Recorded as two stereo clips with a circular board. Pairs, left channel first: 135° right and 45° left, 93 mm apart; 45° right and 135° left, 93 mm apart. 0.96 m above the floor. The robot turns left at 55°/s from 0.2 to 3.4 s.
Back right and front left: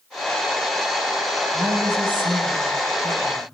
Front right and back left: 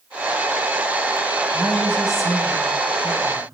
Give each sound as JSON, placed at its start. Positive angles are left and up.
{"t": 1.5, "sound": "a woman speaking", "azimuth_deg": 85, "distance_m": 3.5}